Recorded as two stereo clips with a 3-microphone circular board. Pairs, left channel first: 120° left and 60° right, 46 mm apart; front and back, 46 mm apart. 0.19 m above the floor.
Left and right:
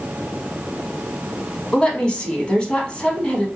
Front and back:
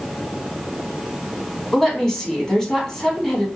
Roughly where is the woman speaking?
Left.